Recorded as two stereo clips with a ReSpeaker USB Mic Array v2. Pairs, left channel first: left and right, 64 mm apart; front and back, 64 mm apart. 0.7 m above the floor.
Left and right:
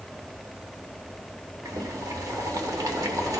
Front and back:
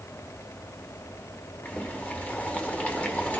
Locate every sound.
1.6 s boiling: 65° right, 1.3 m